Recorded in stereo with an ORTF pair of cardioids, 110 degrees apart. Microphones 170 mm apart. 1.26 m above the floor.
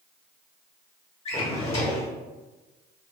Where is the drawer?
40° left, 1.4 m.